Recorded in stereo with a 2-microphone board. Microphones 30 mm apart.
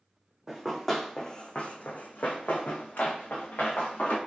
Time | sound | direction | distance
0.5 | running footsteps | 5° right (ahead or behind) | 0.8 m